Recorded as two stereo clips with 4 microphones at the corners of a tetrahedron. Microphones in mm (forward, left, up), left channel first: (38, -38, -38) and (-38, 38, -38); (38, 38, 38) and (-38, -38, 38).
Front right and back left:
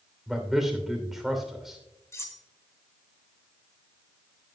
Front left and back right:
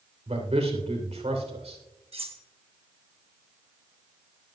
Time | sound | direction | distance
0.3 | a man speaking | 140° right | 3 m
2.1 | cutlery clinking | 110° right | 1.4 m